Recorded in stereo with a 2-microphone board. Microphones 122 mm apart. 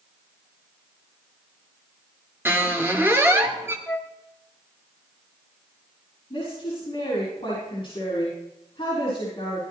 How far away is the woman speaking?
About 5.5 m.